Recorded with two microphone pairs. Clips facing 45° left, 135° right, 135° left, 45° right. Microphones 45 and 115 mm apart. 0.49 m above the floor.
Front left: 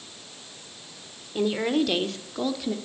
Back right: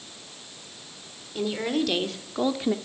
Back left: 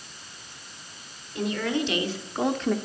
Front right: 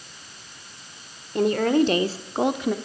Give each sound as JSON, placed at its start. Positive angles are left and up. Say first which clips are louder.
{"t": 1.4, "sound": "a woman speaking", "louder": "front left 3 dB, front right 8 dB", "azimuth_deg": -20, "distance_m": 1.6}